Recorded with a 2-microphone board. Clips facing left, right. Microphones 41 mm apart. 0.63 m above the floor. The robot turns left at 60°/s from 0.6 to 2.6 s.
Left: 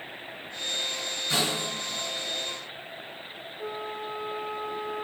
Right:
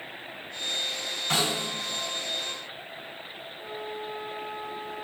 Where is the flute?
55° left (ahead or behind), 0.8 m.